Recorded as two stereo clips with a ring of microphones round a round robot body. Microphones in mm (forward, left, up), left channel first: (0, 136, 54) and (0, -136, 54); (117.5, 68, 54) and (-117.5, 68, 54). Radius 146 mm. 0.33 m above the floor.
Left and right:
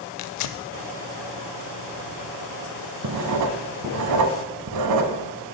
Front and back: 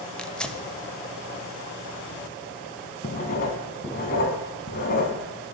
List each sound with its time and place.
0.2 s tearing paper: 85° left, 0.5 m
3.0 s writing: 60° right, 0.7 m